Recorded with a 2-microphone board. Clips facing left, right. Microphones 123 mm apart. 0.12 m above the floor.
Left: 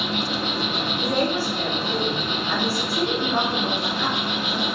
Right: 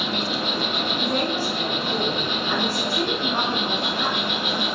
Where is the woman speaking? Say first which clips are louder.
Left 3 dB; 15° right (ahead or behind), 1.7 m.